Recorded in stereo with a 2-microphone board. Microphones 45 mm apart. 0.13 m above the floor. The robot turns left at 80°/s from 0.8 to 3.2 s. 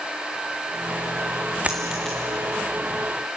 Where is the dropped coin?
30° right (ahead or behind), 1.9 m; by 2.2 s 10° left (ahead or behind), 1.9 m.